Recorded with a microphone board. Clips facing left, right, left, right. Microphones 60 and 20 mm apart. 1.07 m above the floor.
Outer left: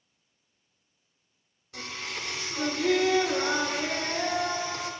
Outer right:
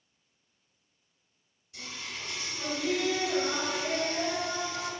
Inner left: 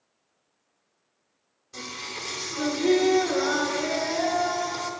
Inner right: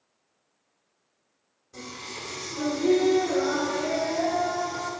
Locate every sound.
1.7 s singing: 70° left (ahead or behind), 1.2 m